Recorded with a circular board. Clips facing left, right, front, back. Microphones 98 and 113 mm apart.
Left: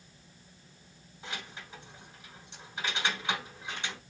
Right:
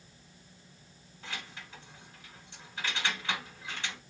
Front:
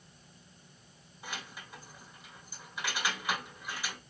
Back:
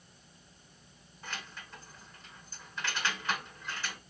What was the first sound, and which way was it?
Keys jangling, 60° left.